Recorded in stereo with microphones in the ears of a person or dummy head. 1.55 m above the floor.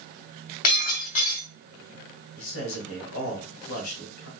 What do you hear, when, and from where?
0.6 s breaking glass: 45° left (ahead or behind), 2.5 m
2.4 s a man speaking: 75° left (ahead or behind), 2.5 m